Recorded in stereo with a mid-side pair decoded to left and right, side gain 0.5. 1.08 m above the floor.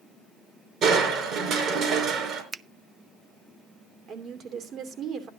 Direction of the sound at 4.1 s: 55° right.